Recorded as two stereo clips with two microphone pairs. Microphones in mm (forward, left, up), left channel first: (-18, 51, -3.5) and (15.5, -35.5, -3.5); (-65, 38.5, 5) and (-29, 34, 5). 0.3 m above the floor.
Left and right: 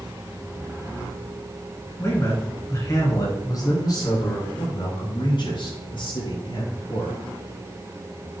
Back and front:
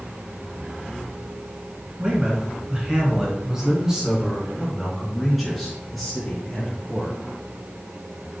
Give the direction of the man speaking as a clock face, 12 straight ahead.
10 o'clock.